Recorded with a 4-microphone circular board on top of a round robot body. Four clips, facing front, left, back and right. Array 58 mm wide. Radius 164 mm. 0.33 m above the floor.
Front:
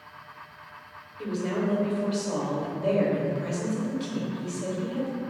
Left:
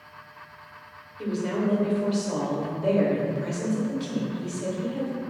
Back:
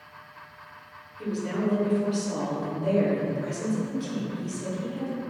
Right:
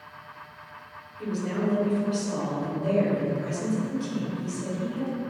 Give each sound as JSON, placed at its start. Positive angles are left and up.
{"t": 1.2, "sound": "a woman speaking", "azimuth_deg": 50, "distance_m": 1.1}